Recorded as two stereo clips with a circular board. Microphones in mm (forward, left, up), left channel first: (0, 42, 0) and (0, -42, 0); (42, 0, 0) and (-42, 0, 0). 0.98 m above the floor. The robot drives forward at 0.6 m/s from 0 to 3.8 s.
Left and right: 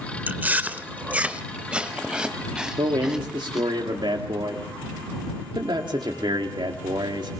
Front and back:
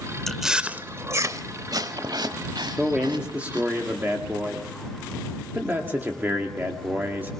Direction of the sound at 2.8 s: 95° right.